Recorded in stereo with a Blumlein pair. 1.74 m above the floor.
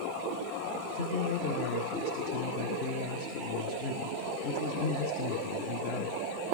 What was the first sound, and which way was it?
A man speaking, 45° left.